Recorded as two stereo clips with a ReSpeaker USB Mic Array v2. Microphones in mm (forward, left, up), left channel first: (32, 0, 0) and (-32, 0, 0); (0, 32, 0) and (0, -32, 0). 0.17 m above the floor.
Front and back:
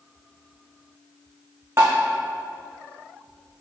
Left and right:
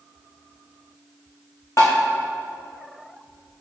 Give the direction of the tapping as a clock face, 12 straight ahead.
7 o'clock.